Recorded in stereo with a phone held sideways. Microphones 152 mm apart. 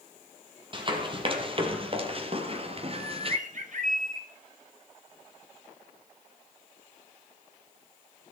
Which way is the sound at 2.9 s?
65° right (ahead or behind).